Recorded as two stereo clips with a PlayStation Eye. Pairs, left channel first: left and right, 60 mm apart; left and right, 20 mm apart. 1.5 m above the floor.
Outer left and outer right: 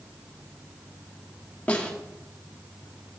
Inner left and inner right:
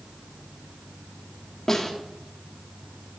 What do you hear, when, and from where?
1.7 s a snare drum: 20° left (ahead or behind), 1.1 m